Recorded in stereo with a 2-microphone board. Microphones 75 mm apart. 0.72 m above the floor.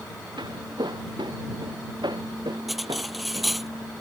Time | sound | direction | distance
0.4 | footsteps | 80° right | ?
2.7 | cutlery clinking | centre (ahead or behind) | ?